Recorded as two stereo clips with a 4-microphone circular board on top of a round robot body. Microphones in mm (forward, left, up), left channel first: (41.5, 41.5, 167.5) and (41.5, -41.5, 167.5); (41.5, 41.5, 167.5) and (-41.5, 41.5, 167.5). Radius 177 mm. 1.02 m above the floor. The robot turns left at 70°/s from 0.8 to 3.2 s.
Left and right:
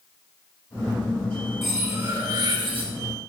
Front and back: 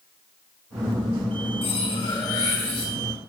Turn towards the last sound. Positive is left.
turn(degrees=-110)